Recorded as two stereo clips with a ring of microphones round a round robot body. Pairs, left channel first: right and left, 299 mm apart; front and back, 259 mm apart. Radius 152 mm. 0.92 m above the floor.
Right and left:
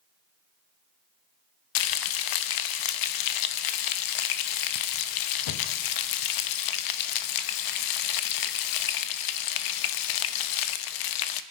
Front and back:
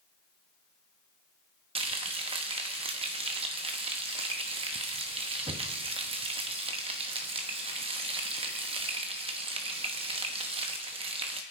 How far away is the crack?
No crack in this recording.